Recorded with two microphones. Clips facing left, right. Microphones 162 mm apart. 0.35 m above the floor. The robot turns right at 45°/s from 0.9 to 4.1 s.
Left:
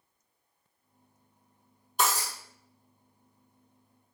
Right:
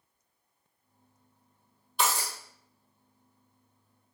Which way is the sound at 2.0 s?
45° left (ahead or behind).